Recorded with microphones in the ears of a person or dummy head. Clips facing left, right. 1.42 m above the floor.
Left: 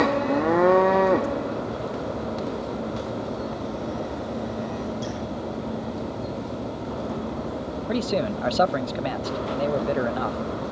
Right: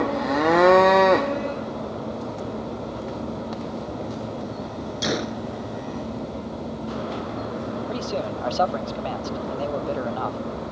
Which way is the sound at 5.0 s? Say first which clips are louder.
Right 4 dB; 80° right.